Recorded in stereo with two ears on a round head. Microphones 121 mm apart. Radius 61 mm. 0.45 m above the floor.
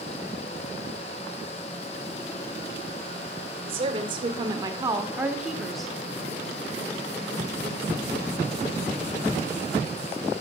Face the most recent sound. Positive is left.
turn(degrees=5)  # may be behind; listen again after turning